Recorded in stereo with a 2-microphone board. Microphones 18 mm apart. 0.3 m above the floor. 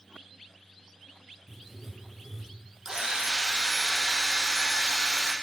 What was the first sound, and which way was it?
Writing, 15° right (ahead or behind).